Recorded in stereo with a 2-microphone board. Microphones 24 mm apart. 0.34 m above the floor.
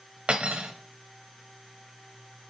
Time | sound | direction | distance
0.3 | cutlery clinking | 55° right (ahead or behind) | 0.7 m